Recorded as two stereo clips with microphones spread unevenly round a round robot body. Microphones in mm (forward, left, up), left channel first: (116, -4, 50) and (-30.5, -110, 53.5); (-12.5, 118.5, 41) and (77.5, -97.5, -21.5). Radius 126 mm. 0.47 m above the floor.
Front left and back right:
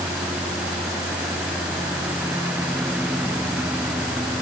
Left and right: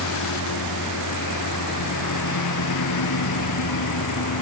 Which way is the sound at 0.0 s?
130° left.